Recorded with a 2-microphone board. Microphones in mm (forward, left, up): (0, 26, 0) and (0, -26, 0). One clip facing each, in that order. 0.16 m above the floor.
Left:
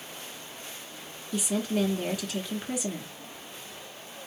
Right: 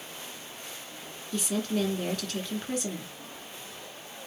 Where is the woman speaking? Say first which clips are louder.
Left 1 dB; 10° left (ahead or behind), 2 m.